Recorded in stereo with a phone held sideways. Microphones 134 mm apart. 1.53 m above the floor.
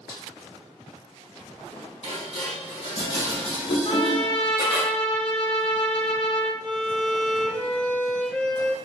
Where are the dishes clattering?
45° left (ahead or behind), 1.7 m.